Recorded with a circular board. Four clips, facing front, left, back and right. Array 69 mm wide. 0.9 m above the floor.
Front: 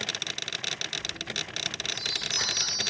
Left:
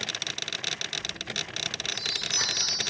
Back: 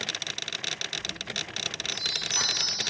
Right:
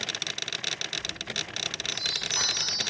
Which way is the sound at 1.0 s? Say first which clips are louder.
Even, even; 140° right.